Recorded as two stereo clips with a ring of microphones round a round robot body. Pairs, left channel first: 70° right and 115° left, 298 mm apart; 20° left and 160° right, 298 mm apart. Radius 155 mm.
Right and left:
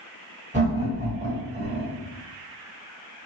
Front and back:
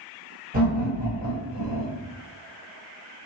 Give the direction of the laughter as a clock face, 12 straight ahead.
7 o'clock.